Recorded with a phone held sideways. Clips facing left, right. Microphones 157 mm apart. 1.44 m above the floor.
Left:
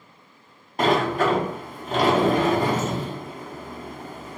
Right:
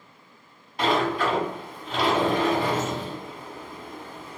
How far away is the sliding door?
About 0.6 m.